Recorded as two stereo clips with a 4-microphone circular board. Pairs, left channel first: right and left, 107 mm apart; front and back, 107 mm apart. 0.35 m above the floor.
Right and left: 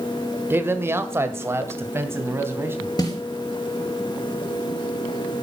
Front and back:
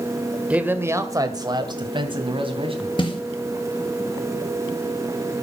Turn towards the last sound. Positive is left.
turn(degrees=-40)